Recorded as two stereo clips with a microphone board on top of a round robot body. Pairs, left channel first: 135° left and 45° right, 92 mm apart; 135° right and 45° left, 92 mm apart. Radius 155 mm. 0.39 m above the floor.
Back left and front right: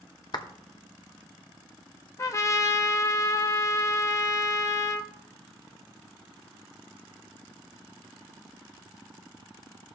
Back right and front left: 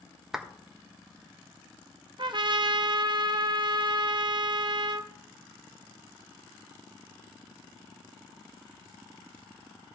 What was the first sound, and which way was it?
A clap, 125° left.